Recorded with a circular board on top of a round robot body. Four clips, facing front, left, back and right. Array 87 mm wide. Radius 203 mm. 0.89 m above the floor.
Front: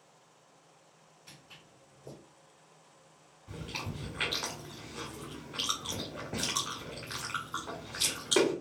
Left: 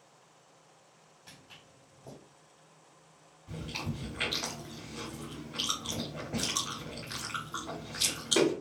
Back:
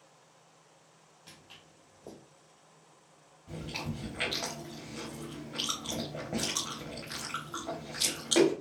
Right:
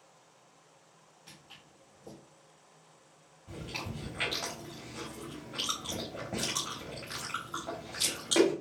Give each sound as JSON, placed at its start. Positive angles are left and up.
{"t": 1.3, "sound": "footsteps", "azimuth_deg": -175, "distance_m": 1.6}
{"t": 3.5, "sound": "chewing", "azimuth_deg": -145, "distance_m": 0.8}